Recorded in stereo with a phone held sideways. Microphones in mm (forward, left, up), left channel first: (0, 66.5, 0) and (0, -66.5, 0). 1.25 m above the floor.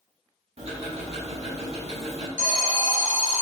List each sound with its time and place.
0.6 s ticking: 60° right (ahead or behind), 1.1 m
2.4 s an alarm: 80° left, 0.8 m